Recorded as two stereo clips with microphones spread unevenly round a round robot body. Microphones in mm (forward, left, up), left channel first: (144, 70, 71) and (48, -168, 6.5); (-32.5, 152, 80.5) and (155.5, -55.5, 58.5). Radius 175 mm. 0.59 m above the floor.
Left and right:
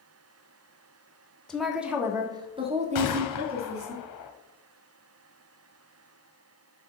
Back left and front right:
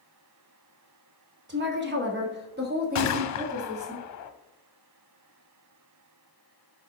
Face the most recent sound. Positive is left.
turn(degrees=105)